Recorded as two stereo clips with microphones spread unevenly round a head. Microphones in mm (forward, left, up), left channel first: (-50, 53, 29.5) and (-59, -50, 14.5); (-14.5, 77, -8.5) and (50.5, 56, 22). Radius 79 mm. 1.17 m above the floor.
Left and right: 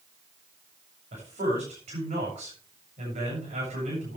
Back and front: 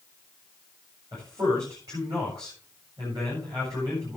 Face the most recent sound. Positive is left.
turn(degrees=-85)